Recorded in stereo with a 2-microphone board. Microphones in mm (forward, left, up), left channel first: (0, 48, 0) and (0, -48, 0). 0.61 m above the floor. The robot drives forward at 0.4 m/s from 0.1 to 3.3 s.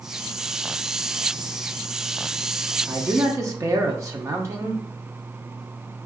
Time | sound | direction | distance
2.9 | a man speaking | 30° right (ahead or behind) | 0.8 m